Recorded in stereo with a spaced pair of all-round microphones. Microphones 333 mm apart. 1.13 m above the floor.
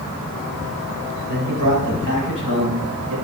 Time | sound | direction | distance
1.3 | a man speaking | 70° right (ahead or behind) | 4 m